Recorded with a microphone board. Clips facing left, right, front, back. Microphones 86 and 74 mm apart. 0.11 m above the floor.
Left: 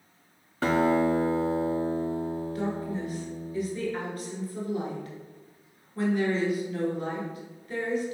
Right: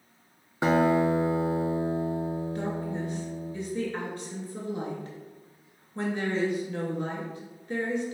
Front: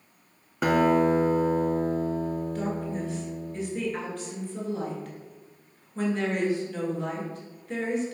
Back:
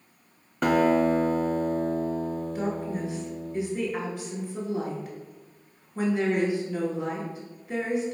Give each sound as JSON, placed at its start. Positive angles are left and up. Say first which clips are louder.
{"t": 0.6, "sound": "a guitar", "louder": "right 1 dB, even", "azimuth_deg": -75, "distance_m": 0.6}
{"t": 2.5, "sound": "a woman speaking", "louder": "left 1 dB, back 1 dB", "azimuth_deg": -110, "distance_m": 1.2}